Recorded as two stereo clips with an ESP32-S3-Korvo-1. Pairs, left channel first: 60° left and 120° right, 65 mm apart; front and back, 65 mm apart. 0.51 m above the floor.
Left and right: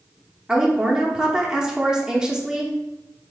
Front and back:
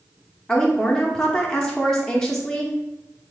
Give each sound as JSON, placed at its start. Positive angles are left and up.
{"t": 0.5, "sound": "a woman speaking", "azimuth_deg": -60, "distance_m": 0.7}